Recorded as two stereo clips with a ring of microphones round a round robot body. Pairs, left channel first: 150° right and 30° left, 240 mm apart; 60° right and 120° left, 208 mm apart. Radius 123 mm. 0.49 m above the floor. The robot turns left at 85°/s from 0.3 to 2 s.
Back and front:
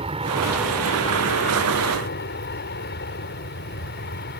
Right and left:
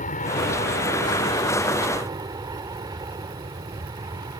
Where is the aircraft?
30° right; by 4.4 s 170° right.